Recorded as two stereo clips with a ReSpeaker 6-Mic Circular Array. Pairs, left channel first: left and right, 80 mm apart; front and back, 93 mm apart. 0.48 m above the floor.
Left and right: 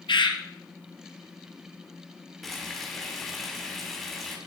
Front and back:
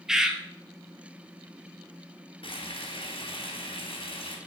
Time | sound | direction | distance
0.1 | a bird | 95° left | 1.7 m
2.4 | frying | 5° left | 3.5 m